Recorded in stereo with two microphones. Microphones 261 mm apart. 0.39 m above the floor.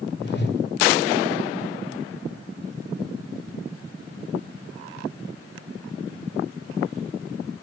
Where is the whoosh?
40° left (ahead or behind), 1.9 m.